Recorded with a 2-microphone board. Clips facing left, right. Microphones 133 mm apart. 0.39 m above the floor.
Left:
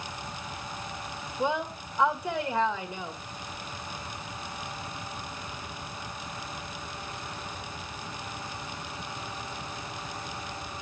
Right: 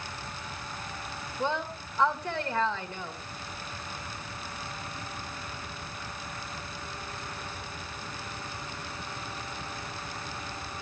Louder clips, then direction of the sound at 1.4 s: Left 2 dB; 15° left (ahead or behind).